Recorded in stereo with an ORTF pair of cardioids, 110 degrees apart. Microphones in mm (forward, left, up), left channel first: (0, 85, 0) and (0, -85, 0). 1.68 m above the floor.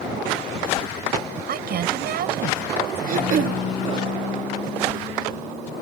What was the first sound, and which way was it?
A woman speaking, 60° right.